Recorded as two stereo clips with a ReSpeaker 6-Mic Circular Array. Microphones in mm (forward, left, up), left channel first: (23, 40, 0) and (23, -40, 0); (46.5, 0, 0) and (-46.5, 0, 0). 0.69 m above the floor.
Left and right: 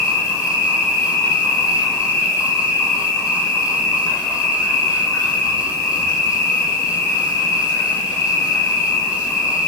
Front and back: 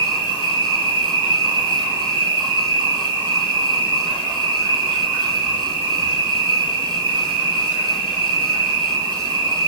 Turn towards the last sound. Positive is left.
turn(degrees=40)